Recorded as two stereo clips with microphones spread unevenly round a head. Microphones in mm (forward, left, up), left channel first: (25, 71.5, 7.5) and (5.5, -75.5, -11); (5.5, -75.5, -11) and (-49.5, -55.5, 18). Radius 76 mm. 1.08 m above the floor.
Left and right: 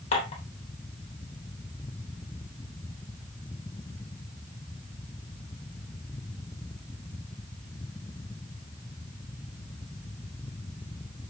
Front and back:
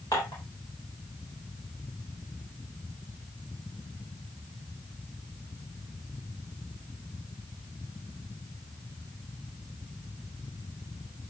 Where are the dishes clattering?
40° left, 3 m.